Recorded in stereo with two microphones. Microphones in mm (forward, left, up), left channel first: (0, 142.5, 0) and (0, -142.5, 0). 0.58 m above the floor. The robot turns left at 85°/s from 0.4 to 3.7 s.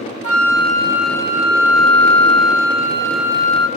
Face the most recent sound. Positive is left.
turn(degrees=-45)